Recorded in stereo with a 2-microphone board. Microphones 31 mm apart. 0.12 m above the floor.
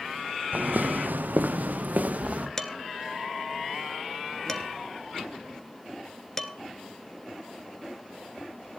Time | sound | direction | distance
0.5 | footsteps | 75° right (ahead or behind) | 1.1 m
2.6 | dishes clattering | 20° left (ahead or behind) | 1.2 m